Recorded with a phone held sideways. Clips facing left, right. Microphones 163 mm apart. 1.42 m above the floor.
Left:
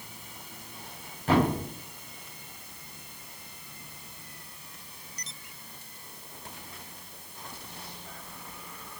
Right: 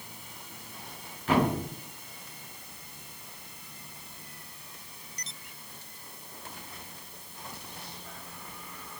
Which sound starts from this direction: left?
A thud, at 1.3 s.